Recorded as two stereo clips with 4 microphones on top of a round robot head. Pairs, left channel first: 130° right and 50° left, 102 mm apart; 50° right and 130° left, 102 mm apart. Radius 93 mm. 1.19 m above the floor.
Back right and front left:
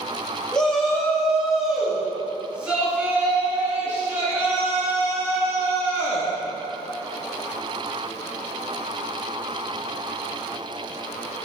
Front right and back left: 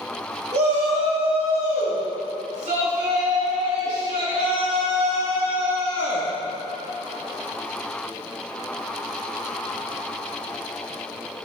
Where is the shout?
150° left, 2.5 m; by 6.3 s 105° left, 4.5 m.